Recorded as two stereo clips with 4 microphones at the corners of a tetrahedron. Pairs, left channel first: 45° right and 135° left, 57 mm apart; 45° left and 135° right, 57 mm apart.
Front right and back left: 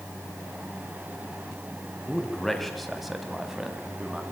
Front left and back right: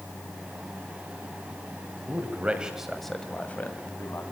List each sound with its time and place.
2.1 s a man speaking: 120° right, 1.6 m; by 4.2 s 65° left, 1.9 m